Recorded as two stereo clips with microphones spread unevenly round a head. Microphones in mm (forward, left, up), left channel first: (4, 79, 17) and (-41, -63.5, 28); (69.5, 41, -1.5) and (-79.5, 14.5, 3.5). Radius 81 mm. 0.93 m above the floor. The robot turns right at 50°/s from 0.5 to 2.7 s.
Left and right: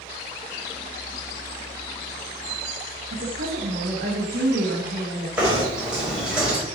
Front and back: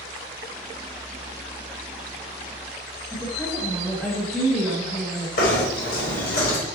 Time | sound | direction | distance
3.1 | a woman speaking | 80° right | 1.1 m
5.4 | knocking | 20° right | 1.5 m